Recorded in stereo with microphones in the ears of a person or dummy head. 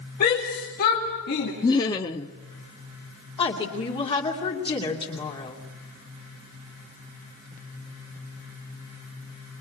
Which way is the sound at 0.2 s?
45° left (ahead or behind).